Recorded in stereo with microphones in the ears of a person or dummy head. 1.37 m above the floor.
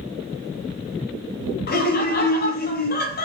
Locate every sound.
1.7 s laughter: 50° left (ahead or behind), 0.8 m